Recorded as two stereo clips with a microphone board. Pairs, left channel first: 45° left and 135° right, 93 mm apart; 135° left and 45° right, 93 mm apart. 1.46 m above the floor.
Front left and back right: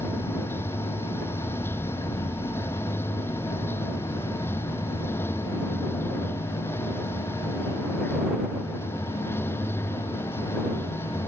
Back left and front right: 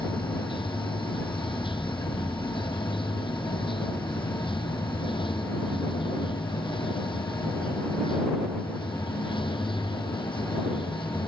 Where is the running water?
110° left.